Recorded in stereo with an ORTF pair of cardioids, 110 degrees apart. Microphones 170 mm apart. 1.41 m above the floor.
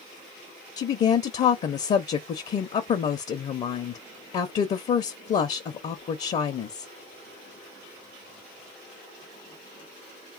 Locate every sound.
0.8 s a woman speaking: 40° left, 0.5 m